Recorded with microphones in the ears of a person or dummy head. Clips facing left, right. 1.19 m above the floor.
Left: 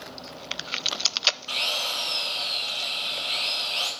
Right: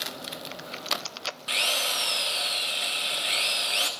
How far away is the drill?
About 0.9 m.